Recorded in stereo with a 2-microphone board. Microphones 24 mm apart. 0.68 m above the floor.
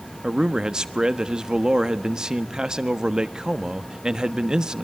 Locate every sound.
0.2 s a man speaking: 25° right (ahead or behind), 1.2 m